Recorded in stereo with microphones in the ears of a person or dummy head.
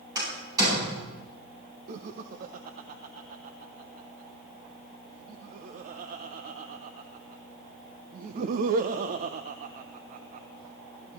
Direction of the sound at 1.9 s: 55° right (ahead or behind).